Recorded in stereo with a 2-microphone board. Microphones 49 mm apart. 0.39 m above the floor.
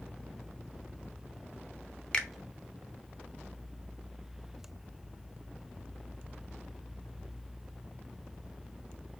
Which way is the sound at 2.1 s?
15° left (ahead or behind).